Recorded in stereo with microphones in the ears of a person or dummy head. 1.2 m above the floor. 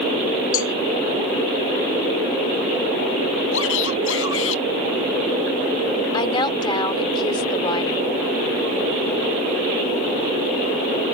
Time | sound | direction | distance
0.5 | a cowbell | 40° left (ahead or behind) | ?
3.5 | a shout | 80° left | ?
6.1 | a woman speaking | 30° left (ahead or behind) | ?